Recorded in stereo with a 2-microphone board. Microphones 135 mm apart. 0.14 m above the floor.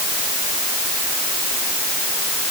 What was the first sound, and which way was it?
Only background noise.